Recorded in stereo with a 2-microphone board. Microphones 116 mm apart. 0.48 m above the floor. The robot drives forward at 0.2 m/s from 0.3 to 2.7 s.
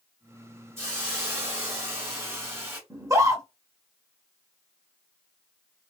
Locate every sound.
0.8 s a hiss: 25° right (ahead or behind), 1.5 m
2.9 s a scream: 30° right (ahead or behind), 0.9 m